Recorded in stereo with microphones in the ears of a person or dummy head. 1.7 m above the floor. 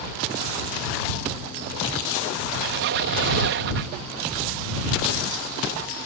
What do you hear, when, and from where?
2.5 s a squeak: 50° right (ahead or behind)